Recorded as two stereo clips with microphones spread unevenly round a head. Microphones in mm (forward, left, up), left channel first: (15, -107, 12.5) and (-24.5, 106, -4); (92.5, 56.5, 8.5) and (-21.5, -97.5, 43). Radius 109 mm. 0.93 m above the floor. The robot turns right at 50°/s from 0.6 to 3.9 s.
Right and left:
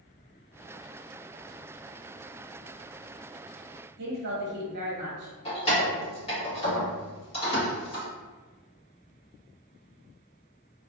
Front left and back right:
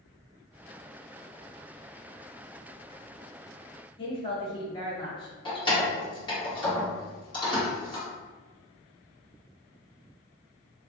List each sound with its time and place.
4.0 s a woman speaking: 100° left, 1.0 m
5.5 s keys jangling: 15° right, 1.6 m